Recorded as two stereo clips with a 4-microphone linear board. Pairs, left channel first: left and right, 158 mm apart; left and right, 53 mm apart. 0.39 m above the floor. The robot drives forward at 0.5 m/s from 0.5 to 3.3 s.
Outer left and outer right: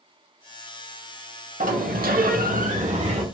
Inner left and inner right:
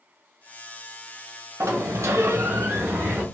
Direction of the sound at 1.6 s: 60° right (ahead or behind).